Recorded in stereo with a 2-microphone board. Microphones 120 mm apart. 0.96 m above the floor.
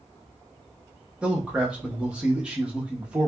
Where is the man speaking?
10° right (ahead or behind), 0.9 m.